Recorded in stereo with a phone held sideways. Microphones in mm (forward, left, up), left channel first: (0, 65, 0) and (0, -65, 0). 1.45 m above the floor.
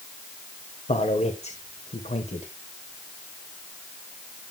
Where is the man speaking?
55° left (ahead or behind), 1.3 m.